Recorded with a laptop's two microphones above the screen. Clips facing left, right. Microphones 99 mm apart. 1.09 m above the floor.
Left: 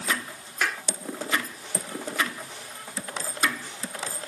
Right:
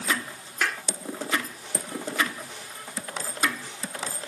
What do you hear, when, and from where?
0.6 s a clap: 5° left (ahead or behind)